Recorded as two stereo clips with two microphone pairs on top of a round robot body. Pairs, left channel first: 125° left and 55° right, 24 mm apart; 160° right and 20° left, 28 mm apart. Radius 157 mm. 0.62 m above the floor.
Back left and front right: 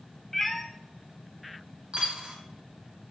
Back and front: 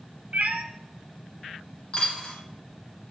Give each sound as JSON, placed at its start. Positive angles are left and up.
{"t": 0.3, "sound": "a cat meowing", "azimuth_deg": 50, "distance_m": 0.6}
{"t": 1.9, "sound": "a dropped coin", "azimuth_deg": -105, "distance_m": 1.8}